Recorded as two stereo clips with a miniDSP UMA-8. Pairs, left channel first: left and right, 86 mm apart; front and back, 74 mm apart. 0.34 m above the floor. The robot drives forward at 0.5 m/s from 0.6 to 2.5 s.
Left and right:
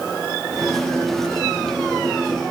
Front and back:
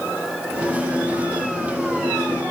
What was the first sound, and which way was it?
Only background noise.